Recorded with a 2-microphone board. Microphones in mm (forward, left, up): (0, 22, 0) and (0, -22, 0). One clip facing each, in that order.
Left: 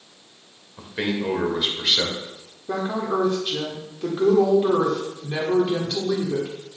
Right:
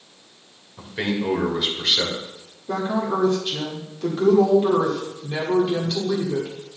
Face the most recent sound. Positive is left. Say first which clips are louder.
# right 1 dB
turn(degrees=10)  # may be behind; listen again after turning